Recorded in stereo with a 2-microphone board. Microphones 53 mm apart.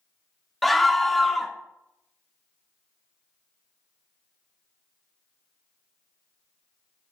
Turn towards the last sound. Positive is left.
turn(degrees=5)  # may be behind; listen again after turning